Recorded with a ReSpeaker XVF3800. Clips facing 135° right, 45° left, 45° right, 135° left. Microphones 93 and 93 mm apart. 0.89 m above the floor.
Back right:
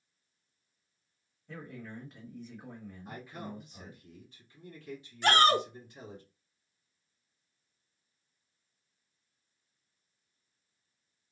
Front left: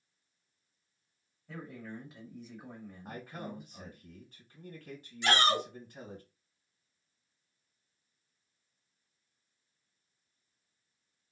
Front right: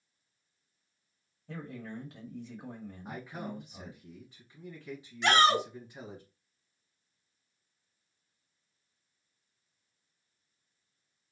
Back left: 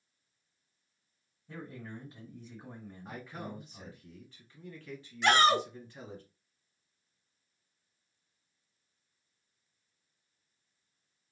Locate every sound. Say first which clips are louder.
1.5 s a man speaking: even, front right 2 dB; 45° right, 1.3 m
3.0 s a man speaking: front left 1 dB, front right 2 dB; 25° left, 1.5 m
5.2 s a shout: back right 4 dB, even; 140° right, 0.6 m